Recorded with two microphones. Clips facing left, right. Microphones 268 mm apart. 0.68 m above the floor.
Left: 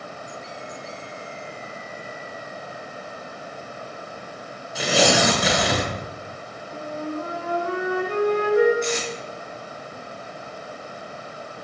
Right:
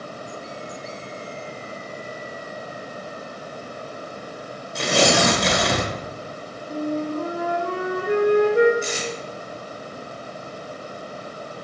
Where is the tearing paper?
5° left (ahead or behind), 1.4 m.